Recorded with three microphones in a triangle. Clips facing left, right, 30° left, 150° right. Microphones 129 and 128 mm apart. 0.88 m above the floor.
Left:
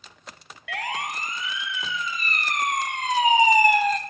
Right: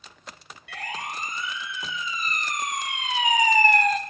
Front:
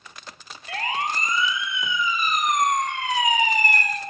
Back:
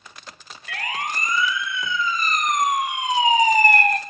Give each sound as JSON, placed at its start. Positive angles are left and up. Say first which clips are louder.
{"t": 0.7, "sound": "a siren", "louder": "left 4 dB, front 2 dB", "azimuth_deg": 90, "distance_m": 3.0}